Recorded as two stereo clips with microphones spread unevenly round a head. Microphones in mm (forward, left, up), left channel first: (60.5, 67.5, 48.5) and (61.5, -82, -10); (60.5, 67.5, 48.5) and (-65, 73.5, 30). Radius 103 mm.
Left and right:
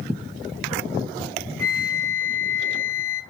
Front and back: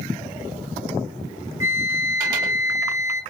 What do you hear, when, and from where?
1.6 s a flute: 165° right, 0.6 m